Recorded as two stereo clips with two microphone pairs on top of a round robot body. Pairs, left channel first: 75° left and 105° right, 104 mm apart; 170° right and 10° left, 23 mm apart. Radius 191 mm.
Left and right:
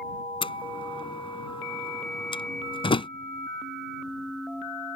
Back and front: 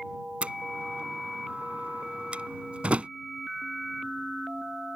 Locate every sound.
0.4 s a door slam: 35° left